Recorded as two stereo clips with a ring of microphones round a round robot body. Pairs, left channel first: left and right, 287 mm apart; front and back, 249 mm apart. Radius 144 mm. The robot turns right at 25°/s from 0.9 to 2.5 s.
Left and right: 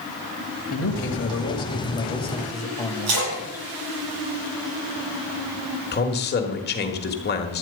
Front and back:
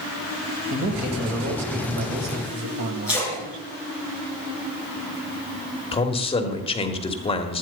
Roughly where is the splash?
Right.